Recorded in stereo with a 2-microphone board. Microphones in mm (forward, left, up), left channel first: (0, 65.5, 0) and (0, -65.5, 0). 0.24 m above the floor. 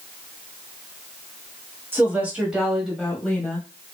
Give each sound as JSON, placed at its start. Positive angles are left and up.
{"t": 1.9, "sound": "a woman speaking", "side_deg": -15, "distance_m": 1.1}